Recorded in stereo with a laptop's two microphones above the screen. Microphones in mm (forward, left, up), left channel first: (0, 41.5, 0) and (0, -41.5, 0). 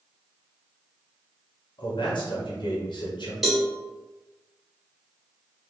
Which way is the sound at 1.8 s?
70° left (ahead or behind).